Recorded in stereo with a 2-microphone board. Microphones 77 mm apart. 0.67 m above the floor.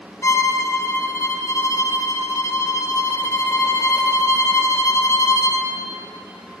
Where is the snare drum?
No snare drum in this recording.